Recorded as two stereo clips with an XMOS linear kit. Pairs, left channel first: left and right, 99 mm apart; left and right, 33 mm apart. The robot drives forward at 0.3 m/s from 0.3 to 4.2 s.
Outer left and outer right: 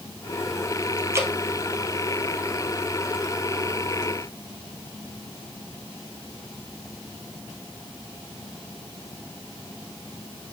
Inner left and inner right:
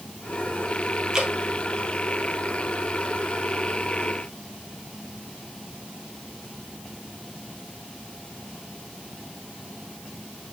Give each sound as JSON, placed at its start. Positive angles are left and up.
{"t": 1.1, "sound": "dripping", "side_deg": -25, "distance_m": 1.6}